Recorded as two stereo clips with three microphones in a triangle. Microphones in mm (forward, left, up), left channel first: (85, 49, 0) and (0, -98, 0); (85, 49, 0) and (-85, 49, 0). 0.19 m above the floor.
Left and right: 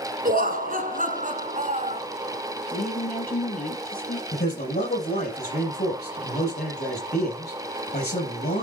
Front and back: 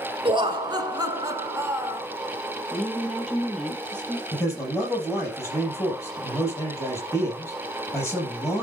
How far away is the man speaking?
About 6 m.